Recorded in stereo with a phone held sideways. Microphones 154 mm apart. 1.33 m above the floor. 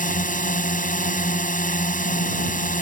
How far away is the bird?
No bird in this recording.